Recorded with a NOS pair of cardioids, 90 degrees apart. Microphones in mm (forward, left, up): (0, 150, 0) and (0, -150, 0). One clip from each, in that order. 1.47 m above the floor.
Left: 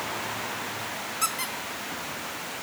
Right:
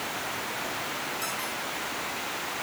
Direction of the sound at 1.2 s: 65° left.